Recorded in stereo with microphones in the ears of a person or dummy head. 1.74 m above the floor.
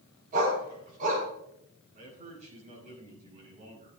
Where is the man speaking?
45° right (ahead or behind), 5.5 m.